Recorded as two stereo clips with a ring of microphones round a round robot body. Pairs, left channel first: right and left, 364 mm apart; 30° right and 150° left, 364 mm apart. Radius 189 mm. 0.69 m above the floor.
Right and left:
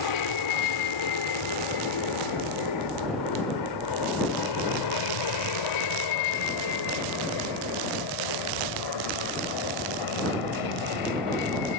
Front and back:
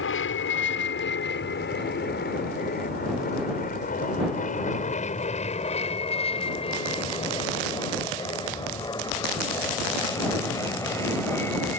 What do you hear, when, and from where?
0.0 s an aircraft: 80° right; by 11.8 s 115° right